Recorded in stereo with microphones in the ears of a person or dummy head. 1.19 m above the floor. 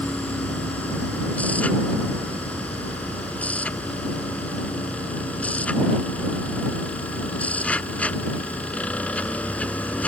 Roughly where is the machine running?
Centre.